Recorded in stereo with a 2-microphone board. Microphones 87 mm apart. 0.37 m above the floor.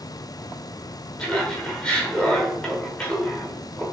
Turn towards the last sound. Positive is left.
turn(degrees=10)  # may be behind; listen again after turning